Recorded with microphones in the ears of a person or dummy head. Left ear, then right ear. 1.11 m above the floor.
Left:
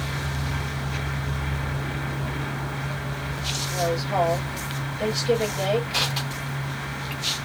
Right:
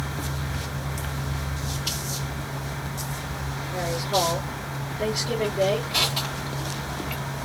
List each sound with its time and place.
3.7 s a woman speaking: 25° left (ahead or behind), 3 m
5.9 s crushing: 15° left (ahead or behind), 2.5 m